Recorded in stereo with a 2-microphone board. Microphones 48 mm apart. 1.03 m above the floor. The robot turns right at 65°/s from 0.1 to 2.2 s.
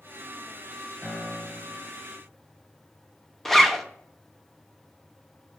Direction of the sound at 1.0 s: 10° left.